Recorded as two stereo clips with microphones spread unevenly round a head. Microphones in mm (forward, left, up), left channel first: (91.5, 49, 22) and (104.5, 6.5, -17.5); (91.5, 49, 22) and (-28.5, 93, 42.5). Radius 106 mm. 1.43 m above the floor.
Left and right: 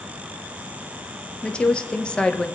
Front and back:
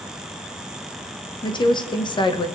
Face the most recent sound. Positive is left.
turn(degrees=35)